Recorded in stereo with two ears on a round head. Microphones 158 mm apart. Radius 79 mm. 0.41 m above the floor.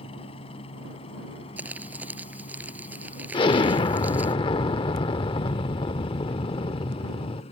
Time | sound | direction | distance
0.0 | a helicopter | 30° left (ahead or behind) | ?
1.6 | crumpling | 10° right (ahead or behind) | ?
3.3 | an explosion | 30° left (ahead or behind) | ?